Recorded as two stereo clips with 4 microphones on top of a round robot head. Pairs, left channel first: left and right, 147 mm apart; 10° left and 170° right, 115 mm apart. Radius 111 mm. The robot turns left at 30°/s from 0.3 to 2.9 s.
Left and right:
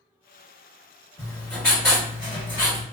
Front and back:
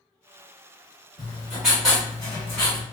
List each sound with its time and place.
1.2 s writing: 125° left, 1.3 m; by 2.8 s 75° left, 1.3 m